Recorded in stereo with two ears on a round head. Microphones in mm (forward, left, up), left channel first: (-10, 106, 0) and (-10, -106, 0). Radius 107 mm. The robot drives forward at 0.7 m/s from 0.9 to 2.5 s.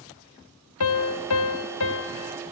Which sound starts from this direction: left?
A piano, at 0.8 s.